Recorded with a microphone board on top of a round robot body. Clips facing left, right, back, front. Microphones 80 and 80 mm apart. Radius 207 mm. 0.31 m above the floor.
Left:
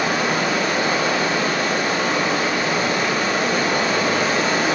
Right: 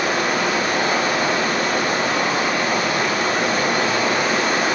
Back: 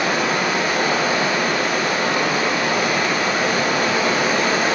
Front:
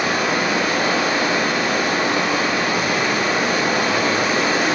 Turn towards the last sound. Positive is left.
turn(degrees=-65)